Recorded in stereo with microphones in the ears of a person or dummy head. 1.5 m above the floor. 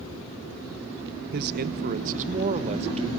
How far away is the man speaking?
About 1.1 m.